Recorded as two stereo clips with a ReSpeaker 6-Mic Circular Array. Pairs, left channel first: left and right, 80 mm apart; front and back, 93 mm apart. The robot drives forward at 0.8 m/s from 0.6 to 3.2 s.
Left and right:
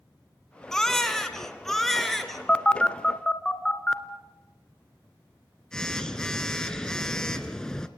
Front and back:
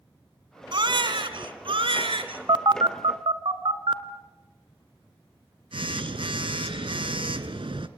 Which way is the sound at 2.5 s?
160° left.